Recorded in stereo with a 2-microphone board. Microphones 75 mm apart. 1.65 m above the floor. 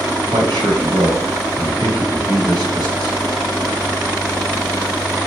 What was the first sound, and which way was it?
A man speaking, 65° right (ahead or behind).